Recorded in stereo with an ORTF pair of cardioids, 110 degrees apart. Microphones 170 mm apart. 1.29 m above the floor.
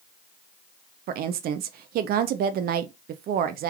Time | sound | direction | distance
1.1 | a woman speaking | 65° right | 0.7 m